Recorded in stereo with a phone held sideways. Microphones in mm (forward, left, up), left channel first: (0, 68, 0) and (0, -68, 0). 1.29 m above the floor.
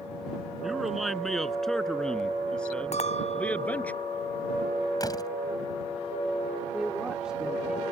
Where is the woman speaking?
5° right (ahead or behind).